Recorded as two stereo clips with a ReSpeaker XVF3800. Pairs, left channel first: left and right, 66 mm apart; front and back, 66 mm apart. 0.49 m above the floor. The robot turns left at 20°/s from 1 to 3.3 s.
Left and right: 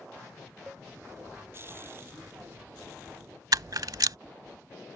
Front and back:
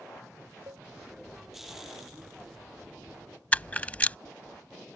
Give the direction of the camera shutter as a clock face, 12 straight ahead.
2 o'clock.